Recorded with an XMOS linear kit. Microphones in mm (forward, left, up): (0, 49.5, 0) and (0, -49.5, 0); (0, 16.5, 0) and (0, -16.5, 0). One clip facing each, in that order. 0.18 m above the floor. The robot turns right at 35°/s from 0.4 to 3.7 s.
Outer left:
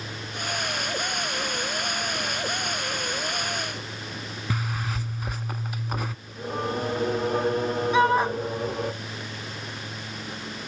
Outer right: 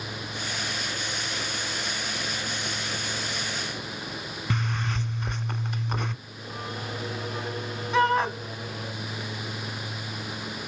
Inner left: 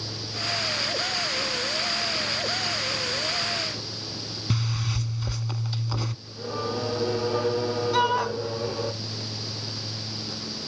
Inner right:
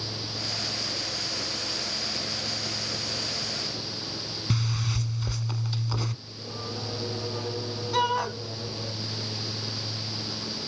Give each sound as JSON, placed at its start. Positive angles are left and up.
{"t": 4.5, "sound": "a zipper", "side_deg": 5, "distance_m": 0.6}
{"t": 6.2, "sound": "singing", "side_deg": 45, "distance_m": 0.9}
{"t": 7.9, "sound": "a shout", "side_deg": 5, "distance_m": 1.2}